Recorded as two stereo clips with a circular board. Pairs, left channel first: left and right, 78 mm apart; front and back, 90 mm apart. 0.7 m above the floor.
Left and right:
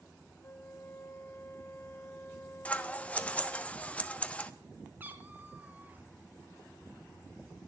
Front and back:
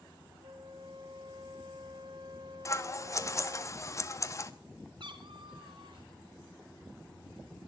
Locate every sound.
0.4 s a flute: 150° left, 1.1 m
2.6 s scissors: 30° left, 1.0 m
5.0 s a cat meowing: 155° right, 1.7 m